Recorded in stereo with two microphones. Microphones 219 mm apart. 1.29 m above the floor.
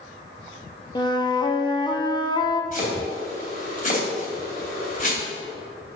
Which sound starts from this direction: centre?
A flute, at 0.9 s.